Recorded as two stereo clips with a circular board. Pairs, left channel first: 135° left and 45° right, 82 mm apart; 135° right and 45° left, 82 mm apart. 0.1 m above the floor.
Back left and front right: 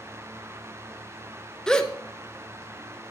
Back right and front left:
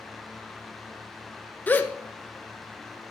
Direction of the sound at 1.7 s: 160° right.